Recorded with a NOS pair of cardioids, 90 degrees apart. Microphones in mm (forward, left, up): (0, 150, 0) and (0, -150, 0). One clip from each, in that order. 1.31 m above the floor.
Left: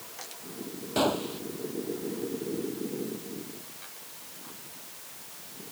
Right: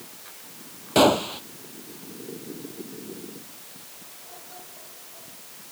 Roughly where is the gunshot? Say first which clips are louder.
Right 9 dB; ahead right.